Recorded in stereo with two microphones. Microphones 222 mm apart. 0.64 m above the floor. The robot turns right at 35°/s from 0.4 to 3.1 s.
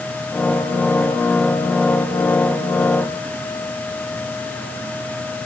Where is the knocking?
I don't hear knocking.